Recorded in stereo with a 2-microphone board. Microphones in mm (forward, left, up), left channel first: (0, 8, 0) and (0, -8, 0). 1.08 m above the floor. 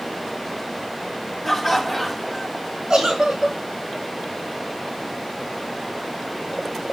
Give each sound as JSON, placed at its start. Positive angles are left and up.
{"t": 1.4, "sound": "laughter", "side_deg": 0, "distance_m": 2.0}
{"t": 2.9, "sound": "a giggle", "side_deg": -80, "distance_m": 4.5}